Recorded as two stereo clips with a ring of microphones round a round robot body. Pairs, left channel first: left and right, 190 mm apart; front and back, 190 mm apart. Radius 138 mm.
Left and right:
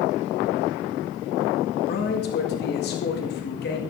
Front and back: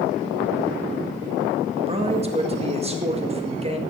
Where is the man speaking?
125° left, 1.9 m.